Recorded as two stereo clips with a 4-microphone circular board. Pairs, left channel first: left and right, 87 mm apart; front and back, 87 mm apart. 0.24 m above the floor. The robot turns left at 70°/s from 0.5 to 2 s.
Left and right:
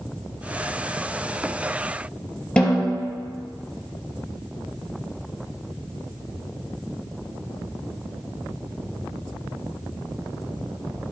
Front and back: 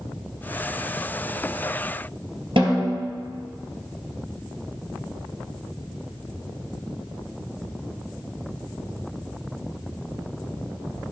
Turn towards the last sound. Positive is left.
turn(degrees=170)